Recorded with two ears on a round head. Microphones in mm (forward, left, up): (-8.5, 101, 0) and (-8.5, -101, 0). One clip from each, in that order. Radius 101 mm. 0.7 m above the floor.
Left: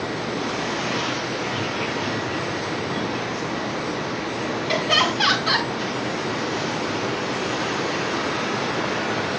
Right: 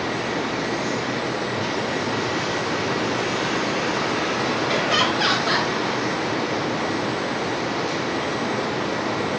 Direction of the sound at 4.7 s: 60° left (ahead or behind).